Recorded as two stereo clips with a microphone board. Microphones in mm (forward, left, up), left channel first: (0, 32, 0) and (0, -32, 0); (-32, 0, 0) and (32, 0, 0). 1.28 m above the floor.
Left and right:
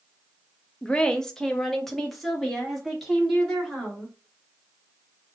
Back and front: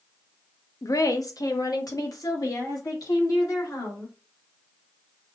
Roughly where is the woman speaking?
Behind.